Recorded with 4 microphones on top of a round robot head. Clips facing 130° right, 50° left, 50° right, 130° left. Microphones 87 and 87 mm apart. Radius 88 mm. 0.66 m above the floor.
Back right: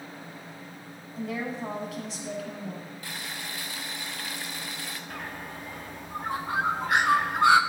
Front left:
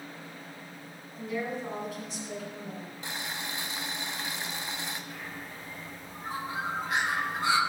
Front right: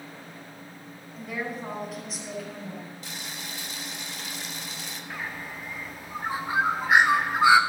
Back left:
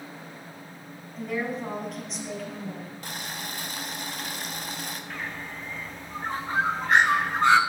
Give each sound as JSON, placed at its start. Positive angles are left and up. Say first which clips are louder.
{"t": 1.2, "sound": "a woman speaking", "louder": "back right 1 dB, back left 4 dB", "azimuth_deg": -140, "distance_m": 5.0}
{"t": 3.0, "sound": "boiling", "louder": "front left 3 dB, back left 3 dB", "azimuth_deg": 110, "distance_m": 1.7}
{"t": 5.1, "sound": "a bird", "louder": "back right 4 dB, even", "azimuth_deg": -130, "distance_m": 1.4}